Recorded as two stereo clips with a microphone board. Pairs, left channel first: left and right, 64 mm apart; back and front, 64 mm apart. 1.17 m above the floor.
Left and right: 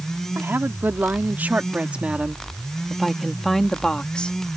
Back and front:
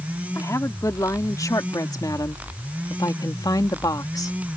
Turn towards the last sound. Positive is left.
turn(degrees=160)